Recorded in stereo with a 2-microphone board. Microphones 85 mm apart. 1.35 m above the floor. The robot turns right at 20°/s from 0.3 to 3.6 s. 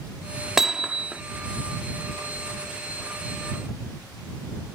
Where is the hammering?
5° right (ahead or behind); by 1.2 s 15° right (ahead or behind).